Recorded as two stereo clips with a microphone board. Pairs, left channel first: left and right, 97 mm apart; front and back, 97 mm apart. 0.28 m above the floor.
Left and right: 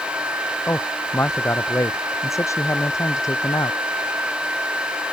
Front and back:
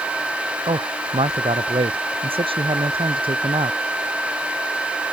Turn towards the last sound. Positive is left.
turn(degrees=145)